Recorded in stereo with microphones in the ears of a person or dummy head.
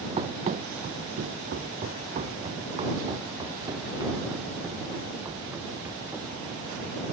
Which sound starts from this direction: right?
Running footsteps, at 0.2 s.